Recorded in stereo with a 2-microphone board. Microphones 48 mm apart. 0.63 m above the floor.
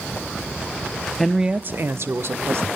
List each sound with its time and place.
1.2 s a woman speaking: 5° left (ahead or behind), 0.6 m; by 2.7 s 65° right (ahead or behind), 1.8 m